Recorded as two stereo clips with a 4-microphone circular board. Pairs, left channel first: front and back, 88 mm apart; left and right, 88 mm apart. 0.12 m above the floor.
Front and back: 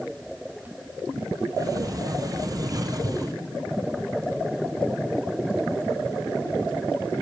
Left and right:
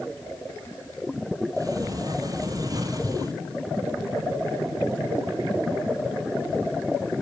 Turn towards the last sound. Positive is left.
turn(degrees=-135)